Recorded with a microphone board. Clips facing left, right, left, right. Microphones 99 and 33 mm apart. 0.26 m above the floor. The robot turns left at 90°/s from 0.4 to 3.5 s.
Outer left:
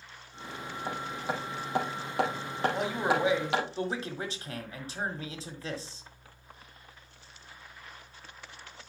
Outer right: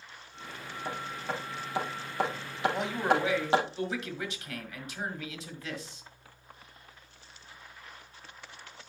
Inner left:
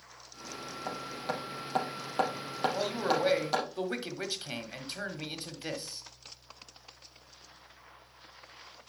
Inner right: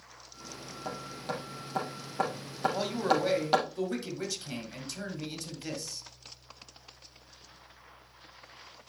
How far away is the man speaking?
About 1.5 m.